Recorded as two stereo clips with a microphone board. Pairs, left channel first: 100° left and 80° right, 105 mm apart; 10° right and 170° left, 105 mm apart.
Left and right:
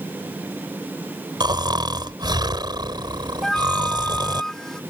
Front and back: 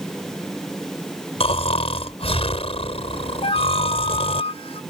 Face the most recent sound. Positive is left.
turn(degrees=15)